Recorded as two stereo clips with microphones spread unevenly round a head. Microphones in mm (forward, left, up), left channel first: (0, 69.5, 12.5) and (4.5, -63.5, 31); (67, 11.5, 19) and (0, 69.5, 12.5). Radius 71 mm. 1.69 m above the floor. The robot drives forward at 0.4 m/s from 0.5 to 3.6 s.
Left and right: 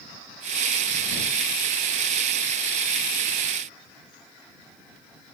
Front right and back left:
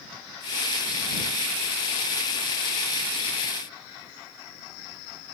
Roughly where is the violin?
No violin in this recording.